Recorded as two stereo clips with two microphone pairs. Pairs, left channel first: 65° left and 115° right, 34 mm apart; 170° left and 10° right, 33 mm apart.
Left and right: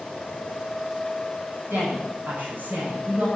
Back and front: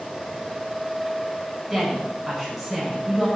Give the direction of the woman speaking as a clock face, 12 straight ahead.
3 o'clock.